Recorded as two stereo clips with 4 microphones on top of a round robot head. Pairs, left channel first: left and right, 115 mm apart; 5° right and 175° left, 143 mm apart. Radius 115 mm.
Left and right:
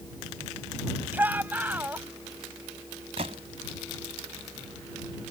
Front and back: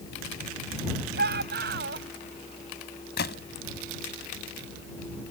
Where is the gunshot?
35° right.